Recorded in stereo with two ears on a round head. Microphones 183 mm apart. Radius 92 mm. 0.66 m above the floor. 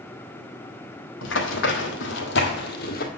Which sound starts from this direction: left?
Running footsteps, at 1.2 s.